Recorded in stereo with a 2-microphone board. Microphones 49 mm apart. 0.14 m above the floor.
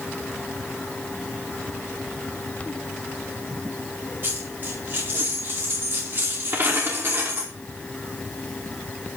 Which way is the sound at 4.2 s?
40° right (ahead or behind).